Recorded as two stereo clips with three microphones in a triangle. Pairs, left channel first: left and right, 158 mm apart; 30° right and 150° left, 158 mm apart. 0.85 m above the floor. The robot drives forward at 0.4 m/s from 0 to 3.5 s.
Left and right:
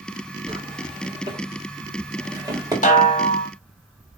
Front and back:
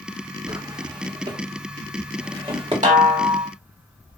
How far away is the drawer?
About 1.5 m.